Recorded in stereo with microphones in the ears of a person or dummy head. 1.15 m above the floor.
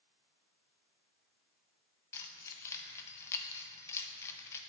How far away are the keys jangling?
About 0.5 m.